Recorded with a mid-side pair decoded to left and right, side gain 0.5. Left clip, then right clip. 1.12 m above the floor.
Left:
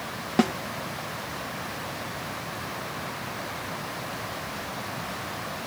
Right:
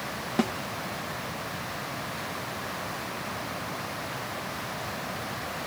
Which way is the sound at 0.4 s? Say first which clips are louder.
Left 5 dB; 25° left.